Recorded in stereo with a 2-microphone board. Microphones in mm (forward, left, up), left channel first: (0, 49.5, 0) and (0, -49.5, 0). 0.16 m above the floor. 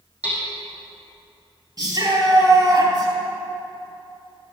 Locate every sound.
0.2 s hammering: 15° right (ahead or behind), 5 m
1.8 s a shout: 45° right (ahead or behind), 4 m